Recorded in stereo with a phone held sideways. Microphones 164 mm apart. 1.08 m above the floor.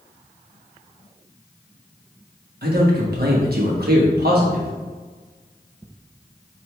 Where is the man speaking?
70° right (ahead or behind), 1.1 m.